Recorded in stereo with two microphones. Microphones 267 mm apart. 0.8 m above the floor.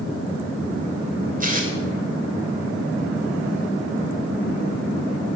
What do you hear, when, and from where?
1.4 s tearing paper: 30° right (ahead or behind), 2.5 m